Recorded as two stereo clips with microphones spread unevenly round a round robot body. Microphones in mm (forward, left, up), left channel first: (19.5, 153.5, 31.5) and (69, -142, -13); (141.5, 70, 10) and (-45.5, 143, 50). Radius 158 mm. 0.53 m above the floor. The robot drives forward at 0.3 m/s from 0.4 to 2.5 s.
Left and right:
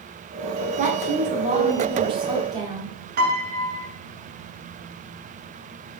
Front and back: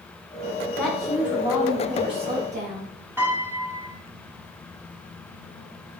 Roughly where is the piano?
Right.